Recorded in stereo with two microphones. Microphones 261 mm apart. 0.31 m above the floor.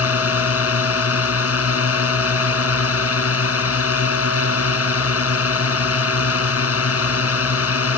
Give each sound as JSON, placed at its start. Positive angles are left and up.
{"t": 0.0, "sound": "a drone", "side_deg": 65}